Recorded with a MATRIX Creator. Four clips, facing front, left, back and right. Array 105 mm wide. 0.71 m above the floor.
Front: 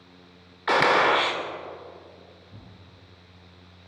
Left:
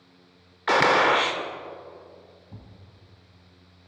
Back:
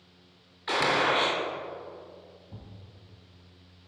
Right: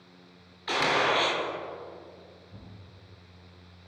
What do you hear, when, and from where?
0.7 s a gunshot: 55° left, 0.7 m
2.5 s a thud: 105° left, 1.9 m